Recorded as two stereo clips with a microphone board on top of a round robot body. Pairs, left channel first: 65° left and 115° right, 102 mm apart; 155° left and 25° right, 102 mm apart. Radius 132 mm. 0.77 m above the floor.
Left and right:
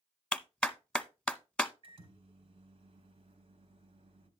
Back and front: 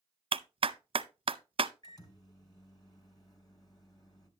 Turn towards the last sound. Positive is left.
turn(degrees=-150)